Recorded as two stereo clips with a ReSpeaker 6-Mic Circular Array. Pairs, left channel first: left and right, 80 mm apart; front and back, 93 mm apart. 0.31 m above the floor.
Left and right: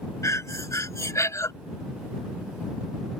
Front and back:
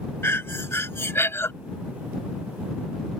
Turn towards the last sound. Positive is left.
turn(degrees=55)